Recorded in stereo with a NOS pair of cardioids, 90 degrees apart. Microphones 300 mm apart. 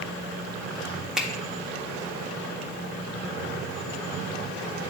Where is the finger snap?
Straight ahead, 1.4 m.